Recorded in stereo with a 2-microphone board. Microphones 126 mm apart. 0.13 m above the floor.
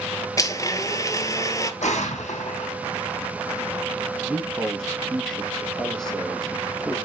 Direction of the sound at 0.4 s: 25° left (ahead or behind).